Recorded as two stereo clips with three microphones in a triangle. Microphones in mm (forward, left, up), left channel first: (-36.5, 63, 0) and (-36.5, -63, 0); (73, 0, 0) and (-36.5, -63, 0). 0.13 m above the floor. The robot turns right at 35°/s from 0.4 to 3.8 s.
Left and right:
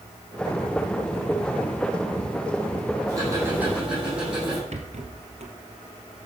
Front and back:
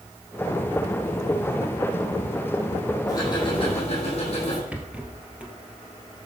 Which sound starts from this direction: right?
A rattle, at 4.7 s.